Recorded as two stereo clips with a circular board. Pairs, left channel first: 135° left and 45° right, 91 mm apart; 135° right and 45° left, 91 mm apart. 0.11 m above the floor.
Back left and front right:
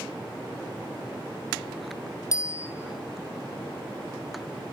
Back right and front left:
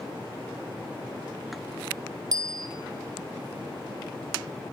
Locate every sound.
2.3 s a bicycle bell: 90° left, 3 m